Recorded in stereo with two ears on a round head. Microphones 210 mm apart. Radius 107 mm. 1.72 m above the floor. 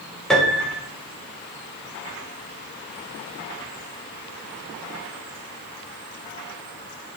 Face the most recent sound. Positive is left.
turn(degrees=0)  # may be behind; listen again after turning